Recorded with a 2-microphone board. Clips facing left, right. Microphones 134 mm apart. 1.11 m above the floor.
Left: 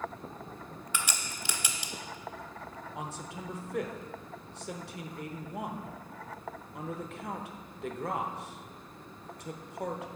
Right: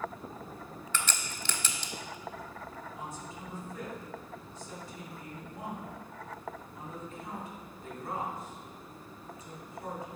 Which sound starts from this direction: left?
A man speaking, at 3.0 s.